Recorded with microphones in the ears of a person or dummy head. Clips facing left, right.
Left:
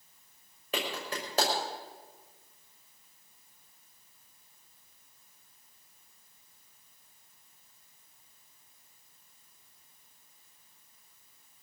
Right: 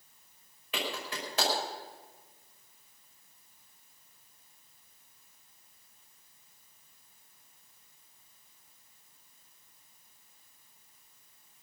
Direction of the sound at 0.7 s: 35° left (ahead or behind).